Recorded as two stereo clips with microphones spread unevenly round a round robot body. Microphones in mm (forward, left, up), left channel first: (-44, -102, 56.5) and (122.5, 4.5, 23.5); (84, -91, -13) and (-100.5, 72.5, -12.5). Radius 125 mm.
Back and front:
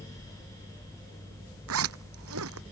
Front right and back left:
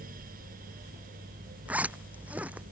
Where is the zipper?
55° left.